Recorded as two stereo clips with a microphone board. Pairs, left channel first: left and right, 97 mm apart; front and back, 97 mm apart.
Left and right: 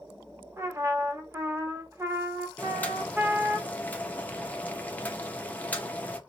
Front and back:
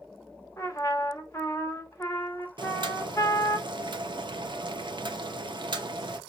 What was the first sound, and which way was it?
A trumpet, 45° right.